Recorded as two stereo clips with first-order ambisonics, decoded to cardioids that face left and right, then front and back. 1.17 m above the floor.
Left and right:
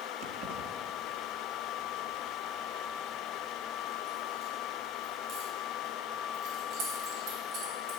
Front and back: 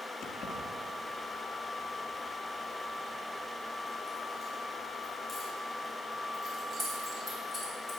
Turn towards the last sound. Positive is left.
turn(degrees=-110)